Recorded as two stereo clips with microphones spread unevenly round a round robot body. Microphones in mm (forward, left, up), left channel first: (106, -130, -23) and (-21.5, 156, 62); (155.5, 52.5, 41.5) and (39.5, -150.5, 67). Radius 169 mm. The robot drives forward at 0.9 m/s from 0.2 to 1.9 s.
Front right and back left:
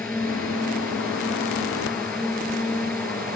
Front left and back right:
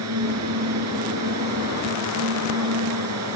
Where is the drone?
150° right.